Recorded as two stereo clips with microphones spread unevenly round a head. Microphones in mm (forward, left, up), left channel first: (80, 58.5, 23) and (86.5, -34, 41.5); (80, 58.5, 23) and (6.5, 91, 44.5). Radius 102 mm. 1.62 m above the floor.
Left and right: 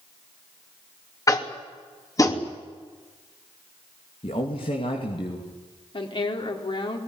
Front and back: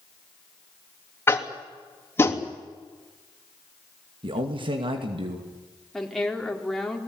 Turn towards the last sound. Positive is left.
turn(degrees=65)